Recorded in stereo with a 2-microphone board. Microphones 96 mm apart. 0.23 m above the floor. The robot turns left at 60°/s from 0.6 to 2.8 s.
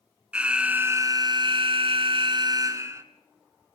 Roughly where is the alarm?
Ahead.